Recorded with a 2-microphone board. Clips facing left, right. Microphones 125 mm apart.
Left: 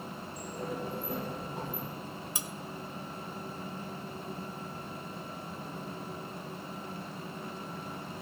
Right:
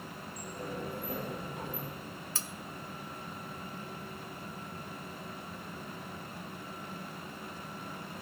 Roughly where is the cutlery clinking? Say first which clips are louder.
Left 2 dB; centre.